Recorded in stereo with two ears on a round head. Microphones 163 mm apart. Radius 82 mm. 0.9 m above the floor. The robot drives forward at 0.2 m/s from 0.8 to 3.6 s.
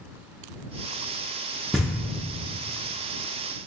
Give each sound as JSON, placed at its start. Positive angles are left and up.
{"t": 1.7, "sound": "knocking", "side_deg": 0, "distance_m": 0.5}